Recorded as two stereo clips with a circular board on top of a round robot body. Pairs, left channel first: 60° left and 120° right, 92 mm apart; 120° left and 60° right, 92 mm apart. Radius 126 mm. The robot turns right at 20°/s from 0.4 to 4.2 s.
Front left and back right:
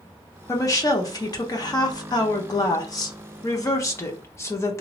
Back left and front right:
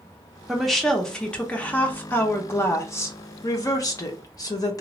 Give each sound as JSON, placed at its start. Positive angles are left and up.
{"t": 0.5, "sound": "a woman speaking", "azimuth_deg": 30, "distance_m": 1.0}